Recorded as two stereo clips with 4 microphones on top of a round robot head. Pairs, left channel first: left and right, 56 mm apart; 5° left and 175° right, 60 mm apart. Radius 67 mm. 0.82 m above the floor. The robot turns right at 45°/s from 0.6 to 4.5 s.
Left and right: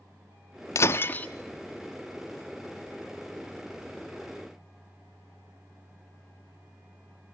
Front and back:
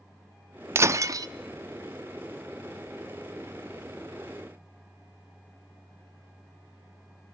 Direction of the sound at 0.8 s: 135° left.